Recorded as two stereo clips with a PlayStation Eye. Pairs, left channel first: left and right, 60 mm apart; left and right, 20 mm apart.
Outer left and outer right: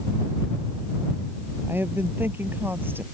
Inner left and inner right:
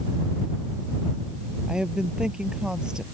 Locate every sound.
1.7 s a woman speaking: 35° right (ahead or behind)